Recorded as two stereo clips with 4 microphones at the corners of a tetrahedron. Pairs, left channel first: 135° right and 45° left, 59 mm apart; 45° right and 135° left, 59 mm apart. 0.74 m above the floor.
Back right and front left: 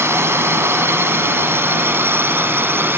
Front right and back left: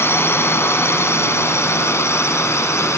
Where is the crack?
No crack in this recording.